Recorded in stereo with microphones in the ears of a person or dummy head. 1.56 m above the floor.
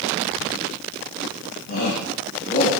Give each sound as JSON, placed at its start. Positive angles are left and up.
{"t": 1.7, "sound": "a shout", "side_deg": 50, "distance_m": 3.5}